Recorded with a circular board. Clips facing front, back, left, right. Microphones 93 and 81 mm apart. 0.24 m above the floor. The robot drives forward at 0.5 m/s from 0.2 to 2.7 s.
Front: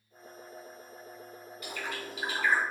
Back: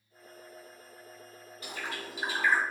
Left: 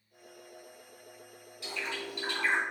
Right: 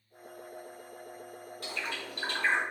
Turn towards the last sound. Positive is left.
turn(degrees=-135)